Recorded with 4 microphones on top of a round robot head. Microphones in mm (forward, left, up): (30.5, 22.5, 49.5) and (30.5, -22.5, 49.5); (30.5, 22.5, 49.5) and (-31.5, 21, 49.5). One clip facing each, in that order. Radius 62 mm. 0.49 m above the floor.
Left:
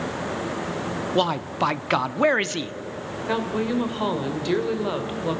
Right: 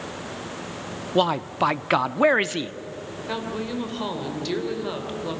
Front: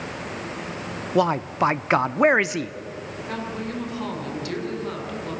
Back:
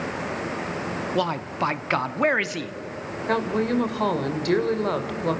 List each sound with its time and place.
1.1 s a man speaking: 20° right, 0.7 m
3.3 s a woman speaking: 160° left, 2.5 m